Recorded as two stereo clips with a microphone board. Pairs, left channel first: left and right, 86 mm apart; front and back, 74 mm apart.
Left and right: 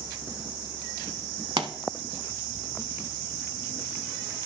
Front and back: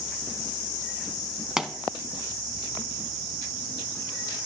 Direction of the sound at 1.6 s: 100° right.